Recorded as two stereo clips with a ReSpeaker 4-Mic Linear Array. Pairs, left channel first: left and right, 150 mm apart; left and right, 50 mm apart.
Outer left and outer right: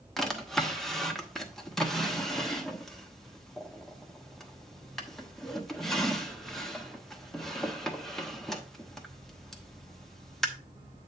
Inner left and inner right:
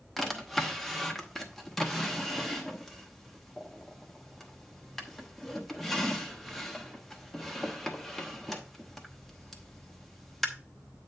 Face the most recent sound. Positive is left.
turn(degrees=0)  # may be behind; listen again after turning